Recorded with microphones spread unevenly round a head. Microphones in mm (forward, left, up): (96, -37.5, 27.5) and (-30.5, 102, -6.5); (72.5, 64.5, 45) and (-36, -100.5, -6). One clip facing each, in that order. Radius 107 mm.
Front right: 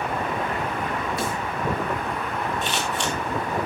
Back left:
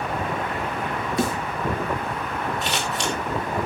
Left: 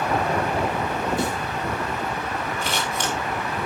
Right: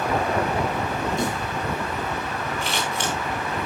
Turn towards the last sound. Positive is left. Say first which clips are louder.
# even, even
turn(degrees=110)